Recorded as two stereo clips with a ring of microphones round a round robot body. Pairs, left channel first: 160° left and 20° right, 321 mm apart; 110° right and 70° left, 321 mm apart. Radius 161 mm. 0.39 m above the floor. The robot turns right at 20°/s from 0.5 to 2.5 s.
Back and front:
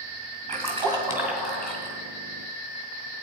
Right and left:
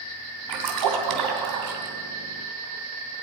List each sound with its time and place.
0.5 s a splash: 45° left, 2.5 m; by 2.0 s 75° left, 2.5 m